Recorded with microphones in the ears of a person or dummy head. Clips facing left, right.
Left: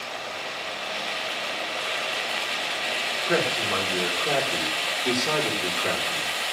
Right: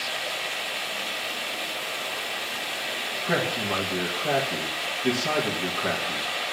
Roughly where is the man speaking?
Right.